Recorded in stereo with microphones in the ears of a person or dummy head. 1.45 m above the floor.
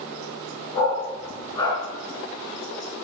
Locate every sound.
0.7 s a dog barking: 25° left (ahead or behind), 6 m